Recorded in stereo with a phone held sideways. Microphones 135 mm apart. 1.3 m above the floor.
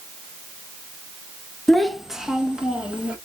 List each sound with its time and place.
1.7 s a child speaking: centre (ahead or behind), 0.6 m; by 3.2 s 10° right (ahead or behind), 1.6 m